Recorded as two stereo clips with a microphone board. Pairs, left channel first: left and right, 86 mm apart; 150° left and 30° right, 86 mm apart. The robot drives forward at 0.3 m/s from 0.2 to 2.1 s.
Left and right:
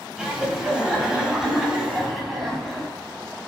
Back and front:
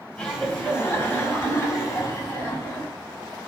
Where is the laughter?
165° right, 1.0 m; by 2.9 s 175° right, 1.3 m.